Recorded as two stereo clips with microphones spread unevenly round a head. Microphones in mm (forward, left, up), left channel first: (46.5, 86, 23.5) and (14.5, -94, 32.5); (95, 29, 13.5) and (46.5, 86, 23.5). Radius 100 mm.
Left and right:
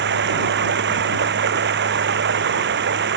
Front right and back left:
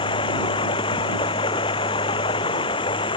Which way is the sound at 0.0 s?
75° right.